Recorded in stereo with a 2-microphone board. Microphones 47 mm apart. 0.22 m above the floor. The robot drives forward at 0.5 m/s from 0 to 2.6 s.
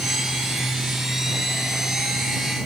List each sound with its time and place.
Only background noise.